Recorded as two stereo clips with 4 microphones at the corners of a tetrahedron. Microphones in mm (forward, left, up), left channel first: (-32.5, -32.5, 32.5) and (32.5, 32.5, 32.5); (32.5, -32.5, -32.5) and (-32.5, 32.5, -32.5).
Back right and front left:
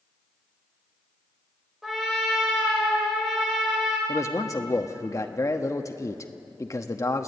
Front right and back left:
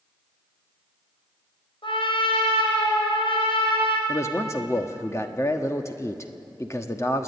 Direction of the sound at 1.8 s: 40° right.